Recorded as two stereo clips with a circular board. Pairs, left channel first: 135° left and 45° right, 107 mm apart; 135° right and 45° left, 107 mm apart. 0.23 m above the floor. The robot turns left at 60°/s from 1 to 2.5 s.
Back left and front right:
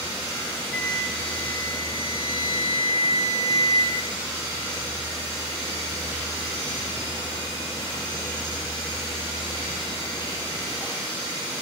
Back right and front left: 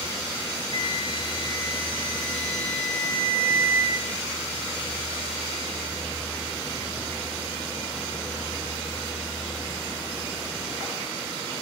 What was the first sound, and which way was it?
A flute, 120° right.